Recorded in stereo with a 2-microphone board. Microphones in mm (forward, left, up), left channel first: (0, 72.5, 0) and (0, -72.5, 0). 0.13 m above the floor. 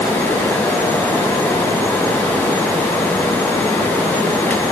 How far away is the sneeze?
I don't hear a sneeze.